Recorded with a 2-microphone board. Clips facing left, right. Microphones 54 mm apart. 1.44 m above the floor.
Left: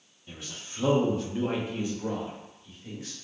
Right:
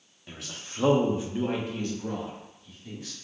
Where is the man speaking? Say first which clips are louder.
Right 1 dB; 75° right (ahead or behind), 0.7 m; by 3.1 s 35° left (ahead or behind), 1.5 m.